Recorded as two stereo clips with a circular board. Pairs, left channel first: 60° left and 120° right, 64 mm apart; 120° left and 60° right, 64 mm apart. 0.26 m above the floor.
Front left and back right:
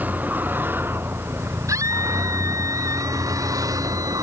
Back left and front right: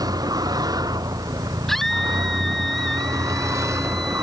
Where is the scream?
155° right.